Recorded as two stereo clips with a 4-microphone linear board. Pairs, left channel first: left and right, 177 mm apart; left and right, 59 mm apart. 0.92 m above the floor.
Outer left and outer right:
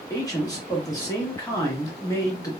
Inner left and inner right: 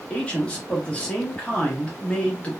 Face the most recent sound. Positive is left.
turn(degrees=20)  # may be behind; listen again after turning